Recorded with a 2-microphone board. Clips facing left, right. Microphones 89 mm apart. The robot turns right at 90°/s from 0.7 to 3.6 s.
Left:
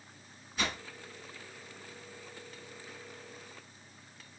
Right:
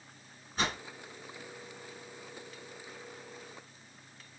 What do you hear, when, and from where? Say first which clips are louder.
0.6 s a whoosh: right 2 dB; 40° right (ahead or behind), 1.3 m; by 0.8 s 35° right (ahead or behind), 1.3 m